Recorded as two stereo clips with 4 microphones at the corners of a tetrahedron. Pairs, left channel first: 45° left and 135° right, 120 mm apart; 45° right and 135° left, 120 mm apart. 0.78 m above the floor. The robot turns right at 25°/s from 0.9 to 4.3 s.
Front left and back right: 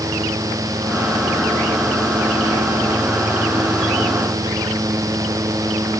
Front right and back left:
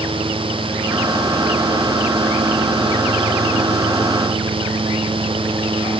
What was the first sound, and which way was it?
Only background noise.